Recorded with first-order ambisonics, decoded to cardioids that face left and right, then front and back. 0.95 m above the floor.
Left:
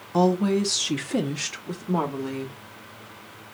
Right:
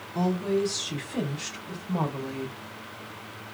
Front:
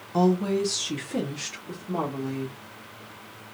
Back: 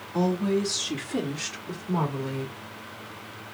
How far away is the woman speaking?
About 0.8 m.